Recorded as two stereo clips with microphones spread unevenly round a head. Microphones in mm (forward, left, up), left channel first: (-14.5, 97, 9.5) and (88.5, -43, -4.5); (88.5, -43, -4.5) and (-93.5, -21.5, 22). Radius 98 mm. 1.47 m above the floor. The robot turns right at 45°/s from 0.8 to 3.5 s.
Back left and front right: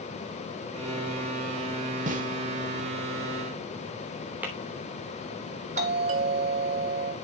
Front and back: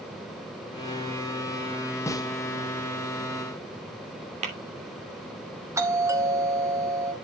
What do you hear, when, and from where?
2.1 s a snare drum: 85° right, 1.4 m; by 2.3 s 75° right, 1.4 m
4.4 s tapping: 140° right, 3 m
5.8 s a doorbell: 110° right, 2.5 m